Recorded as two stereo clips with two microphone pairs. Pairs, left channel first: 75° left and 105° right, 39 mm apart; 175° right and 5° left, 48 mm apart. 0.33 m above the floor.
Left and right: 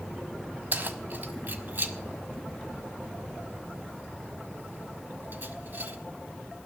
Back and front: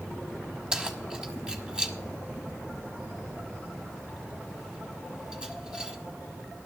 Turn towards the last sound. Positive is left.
turn(degrees=-70)